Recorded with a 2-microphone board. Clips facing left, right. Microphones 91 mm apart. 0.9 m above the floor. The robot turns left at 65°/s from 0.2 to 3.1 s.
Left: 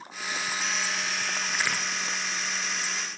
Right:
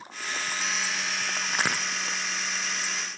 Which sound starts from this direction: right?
A crack, at 1.5 s.